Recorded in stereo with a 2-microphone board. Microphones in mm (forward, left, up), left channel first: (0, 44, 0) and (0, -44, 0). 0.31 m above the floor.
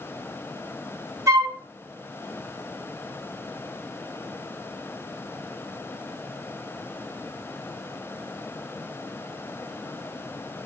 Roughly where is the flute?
Right.